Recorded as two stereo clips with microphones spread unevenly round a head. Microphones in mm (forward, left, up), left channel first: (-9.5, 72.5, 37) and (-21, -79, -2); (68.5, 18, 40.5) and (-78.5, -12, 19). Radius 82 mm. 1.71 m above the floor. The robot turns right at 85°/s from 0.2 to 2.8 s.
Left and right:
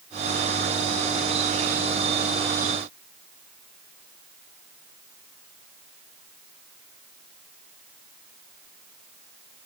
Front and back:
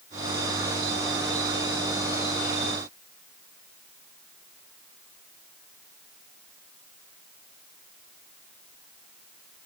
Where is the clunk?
I don't hear a clunk.